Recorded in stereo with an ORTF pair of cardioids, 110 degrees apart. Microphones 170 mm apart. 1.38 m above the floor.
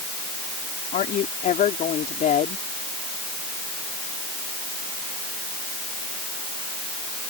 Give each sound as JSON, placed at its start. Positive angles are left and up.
{"t": 0.9, "sound": "a woman speaking", "azimuth_deg": 50}